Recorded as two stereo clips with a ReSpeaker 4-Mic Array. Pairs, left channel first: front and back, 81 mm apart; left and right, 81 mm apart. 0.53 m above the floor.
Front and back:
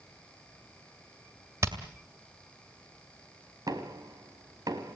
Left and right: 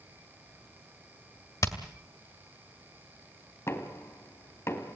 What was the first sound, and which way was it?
Hammering, 130° left.